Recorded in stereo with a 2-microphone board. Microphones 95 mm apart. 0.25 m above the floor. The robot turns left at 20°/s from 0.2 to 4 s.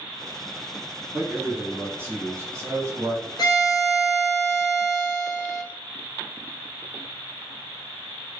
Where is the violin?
50° left (ahead or behind), 0.9 m; by 5.6 s 35° left (ahead or behind), 0.9 m.